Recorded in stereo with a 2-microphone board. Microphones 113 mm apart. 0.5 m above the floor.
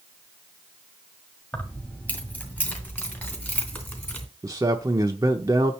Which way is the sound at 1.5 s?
15° left (ahead or behind).